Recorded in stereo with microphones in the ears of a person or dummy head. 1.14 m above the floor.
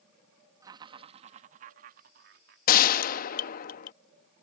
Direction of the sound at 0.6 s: 25° right (ahead or behind).